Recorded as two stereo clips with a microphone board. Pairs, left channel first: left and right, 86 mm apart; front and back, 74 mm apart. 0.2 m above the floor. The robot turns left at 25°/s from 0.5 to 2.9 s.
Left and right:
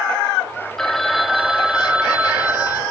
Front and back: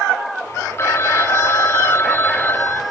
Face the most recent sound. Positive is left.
turn(degrees=-45)